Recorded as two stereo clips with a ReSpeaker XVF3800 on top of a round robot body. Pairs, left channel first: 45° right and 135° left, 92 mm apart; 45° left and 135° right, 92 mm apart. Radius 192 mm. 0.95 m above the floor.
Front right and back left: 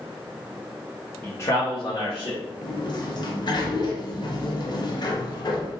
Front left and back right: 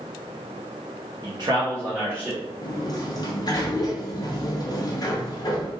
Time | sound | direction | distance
1.2 | a man speaking | 110° right | 1.0 m
2.6 | a sliding door | straight ahead | 0.8 m